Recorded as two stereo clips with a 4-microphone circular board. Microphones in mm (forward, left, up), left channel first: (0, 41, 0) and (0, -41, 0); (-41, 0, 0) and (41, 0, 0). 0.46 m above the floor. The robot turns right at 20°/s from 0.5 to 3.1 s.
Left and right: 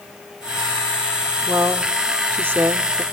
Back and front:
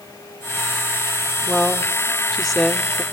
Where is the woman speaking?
120° right, 0.8 m; by 3.0 s 90° right, 0.8 m.